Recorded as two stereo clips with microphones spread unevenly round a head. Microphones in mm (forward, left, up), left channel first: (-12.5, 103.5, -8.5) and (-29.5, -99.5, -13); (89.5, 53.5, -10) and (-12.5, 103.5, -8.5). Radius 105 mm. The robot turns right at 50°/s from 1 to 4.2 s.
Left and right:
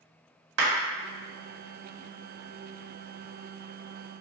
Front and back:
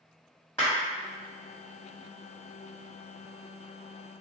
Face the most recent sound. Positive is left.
turn(degrees=55)